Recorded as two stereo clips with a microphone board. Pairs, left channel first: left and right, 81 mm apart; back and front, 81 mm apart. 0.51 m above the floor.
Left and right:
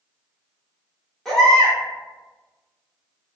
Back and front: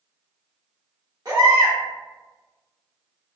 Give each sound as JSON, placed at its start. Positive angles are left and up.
{"t": 1.2, "sound": "a baby crying", "azimuth_deg": 5, "distance_m": 1.2}